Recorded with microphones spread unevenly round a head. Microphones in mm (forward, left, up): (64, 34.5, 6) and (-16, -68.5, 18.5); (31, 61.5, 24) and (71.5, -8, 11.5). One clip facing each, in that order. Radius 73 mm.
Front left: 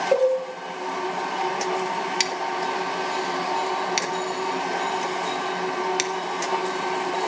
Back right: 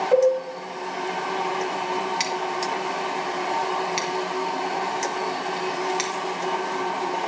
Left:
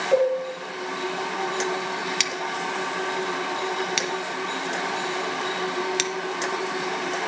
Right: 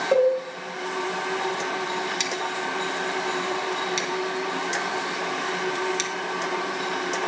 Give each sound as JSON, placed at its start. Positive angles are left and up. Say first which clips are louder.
{"t": 0.1, "sound": "a cowbell", "louder": "back right 2 dB, right 1 dB", "azimuth_deg": -15, "distance_m": 4.0}
{"t": 2.2, "sound": "scissors", "louder": "even, even", "azimuth_deg": 95, "distance_m": 1.0}